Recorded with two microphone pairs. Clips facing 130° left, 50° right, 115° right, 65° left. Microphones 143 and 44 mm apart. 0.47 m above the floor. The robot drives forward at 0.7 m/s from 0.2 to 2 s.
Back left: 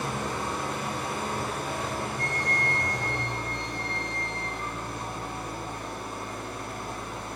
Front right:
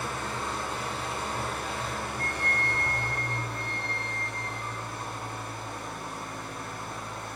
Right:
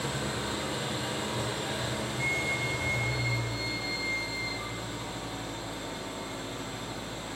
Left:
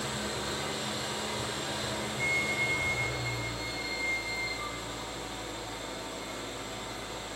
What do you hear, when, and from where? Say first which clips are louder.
0.0 s an engine running: back left 3 dB, right 2 dB; straight behind, 2.5 m
2.2 s a flute: back left 2 dB, left 1 dB; 135° left, 0.7 m